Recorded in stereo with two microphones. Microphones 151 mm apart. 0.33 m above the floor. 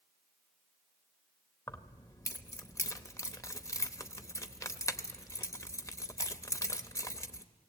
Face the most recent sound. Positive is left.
turn(degrees=20)  # may be behind; listen again after turning